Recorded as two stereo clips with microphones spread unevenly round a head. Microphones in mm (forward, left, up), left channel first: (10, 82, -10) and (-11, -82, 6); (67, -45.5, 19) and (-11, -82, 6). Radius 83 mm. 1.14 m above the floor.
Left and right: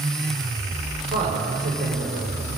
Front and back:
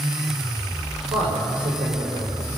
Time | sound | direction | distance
1.1 | a man speaking | 145° right | 5 m